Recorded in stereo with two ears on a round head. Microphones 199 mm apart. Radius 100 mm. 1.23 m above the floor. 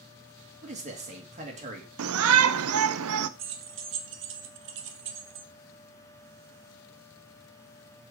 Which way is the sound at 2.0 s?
70° right (ahead or behind).